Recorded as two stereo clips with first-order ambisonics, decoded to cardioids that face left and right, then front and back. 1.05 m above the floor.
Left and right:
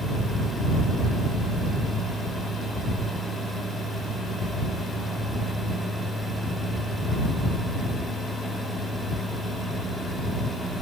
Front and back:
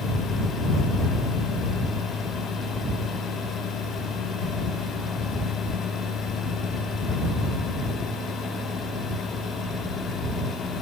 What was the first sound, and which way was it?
Only background noise.